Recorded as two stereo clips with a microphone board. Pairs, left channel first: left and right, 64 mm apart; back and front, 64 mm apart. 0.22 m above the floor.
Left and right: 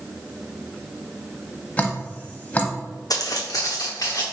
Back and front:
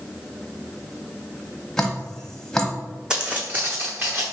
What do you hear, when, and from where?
1.8 s dripping: 115° left, 0.8 m
3.1 s footsteps: 75° left, 0.7 m; by 4.2 s 55° left, 1.4 m